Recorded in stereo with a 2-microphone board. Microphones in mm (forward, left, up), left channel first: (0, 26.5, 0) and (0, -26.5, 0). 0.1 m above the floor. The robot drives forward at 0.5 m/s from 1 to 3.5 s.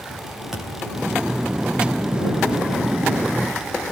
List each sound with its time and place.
0.5 s a thud: 10° right (ahead or behind), 5.5 m